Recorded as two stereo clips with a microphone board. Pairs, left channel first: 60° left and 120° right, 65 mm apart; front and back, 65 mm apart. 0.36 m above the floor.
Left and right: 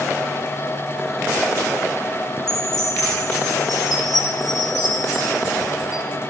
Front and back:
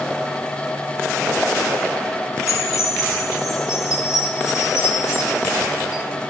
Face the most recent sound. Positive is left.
turn(degrees=40)